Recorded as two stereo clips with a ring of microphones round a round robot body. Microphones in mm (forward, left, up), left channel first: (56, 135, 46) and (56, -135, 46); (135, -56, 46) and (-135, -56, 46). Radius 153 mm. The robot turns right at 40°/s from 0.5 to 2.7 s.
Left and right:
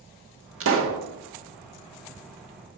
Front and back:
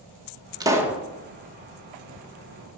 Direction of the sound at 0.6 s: 110° right.